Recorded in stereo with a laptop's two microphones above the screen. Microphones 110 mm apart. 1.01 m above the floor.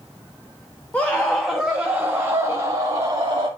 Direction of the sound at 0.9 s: 15° left (ahead or behind).